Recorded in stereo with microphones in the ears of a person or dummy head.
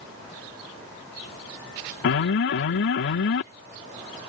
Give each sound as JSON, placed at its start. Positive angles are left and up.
{"t": 2.0, "sound": "an alarm", "side_deg": 70}